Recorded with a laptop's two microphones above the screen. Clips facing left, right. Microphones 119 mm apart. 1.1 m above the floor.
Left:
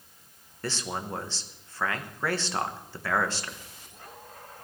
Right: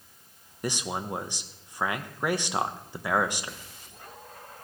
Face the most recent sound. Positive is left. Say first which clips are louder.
# right 2 dB
turn(degrees=-15)  # may be behind; listen again after turning